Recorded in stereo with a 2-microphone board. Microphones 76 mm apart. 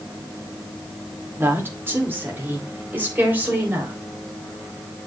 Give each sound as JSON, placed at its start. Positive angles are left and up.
{"t": 1.4, "sound": "a woman speaking", "side_deg": -30, "distance_m": 2.0}